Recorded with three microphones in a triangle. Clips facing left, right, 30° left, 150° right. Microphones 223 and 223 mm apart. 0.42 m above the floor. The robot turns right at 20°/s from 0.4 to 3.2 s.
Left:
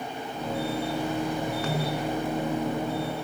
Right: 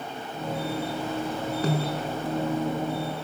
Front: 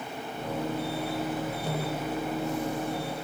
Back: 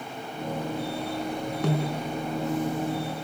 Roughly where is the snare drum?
Behind right.